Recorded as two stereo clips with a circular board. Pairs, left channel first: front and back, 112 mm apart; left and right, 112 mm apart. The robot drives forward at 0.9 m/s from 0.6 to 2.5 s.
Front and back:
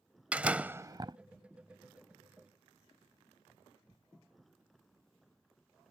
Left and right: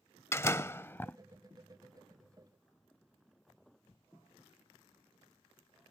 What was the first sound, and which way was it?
A door slam, 120° left.